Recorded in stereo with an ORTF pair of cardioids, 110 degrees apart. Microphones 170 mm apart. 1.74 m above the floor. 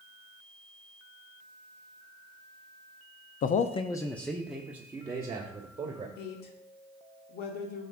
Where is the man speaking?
60° left, 0.7 m; by 6.1 s 25° right, 2 m.